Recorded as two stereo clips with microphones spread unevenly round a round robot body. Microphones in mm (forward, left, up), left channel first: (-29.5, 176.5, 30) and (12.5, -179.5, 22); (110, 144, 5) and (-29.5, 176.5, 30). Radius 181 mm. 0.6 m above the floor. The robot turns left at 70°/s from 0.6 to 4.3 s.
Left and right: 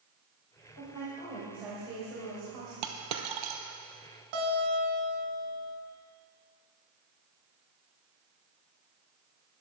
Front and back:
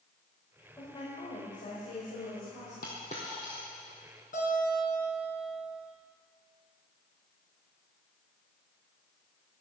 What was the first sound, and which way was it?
A woman speaking, 60° left.